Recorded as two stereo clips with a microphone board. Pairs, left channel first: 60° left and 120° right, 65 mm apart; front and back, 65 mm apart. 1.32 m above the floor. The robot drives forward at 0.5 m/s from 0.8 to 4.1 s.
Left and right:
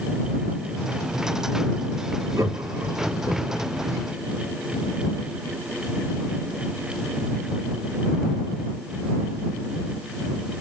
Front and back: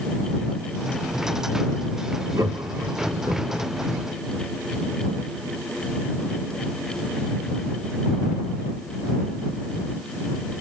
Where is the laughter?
160° right, 1.4 m; by 3.7 s 165° right, 2 m.